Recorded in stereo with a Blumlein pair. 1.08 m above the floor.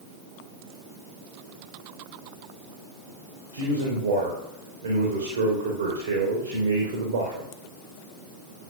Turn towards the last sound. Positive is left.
turn(degrees=-55)